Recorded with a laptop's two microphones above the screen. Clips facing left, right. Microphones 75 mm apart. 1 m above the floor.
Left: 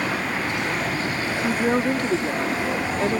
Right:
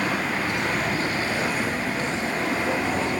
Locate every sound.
1.4 s a woman speaking: 60° left (ahead or behind)